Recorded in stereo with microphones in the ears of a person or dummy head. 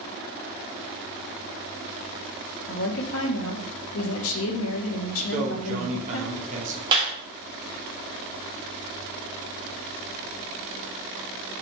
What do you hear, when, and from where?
2.7 s a woman speaking: 75° left (ahead or behind), 0.8 m
5.3 s a man speaking: 40° right (ahead or behind), 0.9 m
6.9 s a clap: 25° right (ahead or behind), 1.8 m